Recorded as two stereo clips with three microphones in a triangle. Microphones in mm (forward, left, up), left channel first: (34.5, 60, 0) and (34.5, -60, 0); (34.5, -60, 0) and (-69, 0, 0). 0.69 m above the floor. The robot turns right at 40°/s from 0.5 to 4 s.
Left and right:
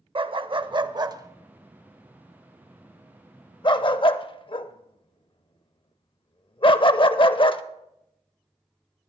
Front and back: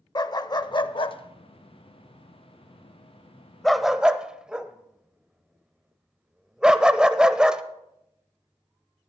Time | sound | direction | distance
0.1 | a dog barking | 70° right | 0.5 m